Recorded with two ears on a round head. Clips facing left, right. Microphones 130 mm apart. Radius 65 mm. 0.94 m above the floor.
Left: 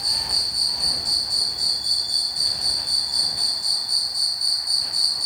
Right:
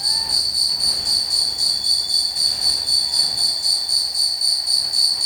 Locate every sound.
0.0 s an insect: 30° right (ahead or behind), 0.8 m